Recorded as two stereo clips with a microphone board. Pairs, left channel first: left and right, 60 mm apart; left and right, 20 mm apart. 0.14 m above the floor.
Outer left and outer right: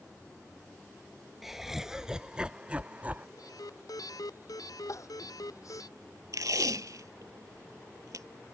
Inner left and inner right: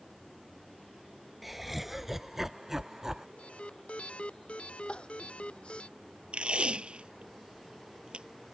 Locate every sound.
1.4 s laughter: 5° right (ahead or behind); by 3.3 s 30° right (ahead or behind)
3.4 s an alarm: 85° left
4.9 s crying: 65° left (ahead or behind)
6.3 s tape being pulled: 70° right (ahead or behind)